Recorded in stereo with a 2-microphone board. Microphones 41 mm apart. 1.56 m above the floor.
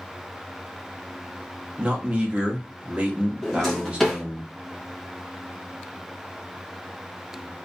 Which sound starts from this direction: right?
A man speaking, at 1.8 s.